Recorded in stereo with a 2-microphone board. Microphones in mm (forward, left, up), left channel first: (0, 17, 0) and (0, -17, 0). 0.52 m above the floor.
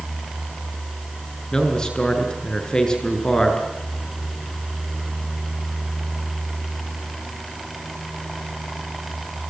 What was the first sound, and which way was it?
A man speaking, 20° left (ahead or behind).